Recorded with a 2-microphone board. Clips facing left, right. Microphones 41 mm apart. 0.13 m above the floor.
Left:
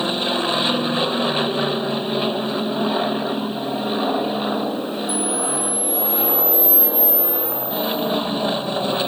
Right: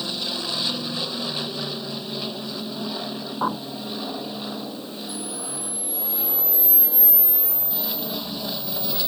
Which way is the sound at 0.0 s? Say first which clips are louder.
Left 8 dB; 40° left (ahead or behind).